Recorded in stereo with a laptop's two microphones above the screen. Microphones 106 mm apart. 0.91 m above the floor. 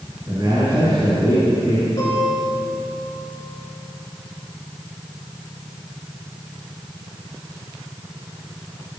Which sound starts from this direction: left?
A guitar, at 2.0 s.